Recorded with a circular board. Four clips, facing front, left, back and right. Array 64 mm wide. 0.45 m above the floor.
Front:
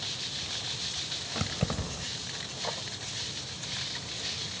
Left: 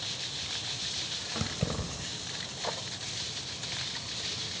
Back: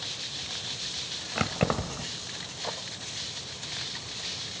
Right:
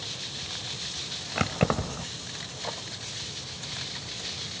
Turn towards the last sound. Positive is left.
turn(degrees=-125)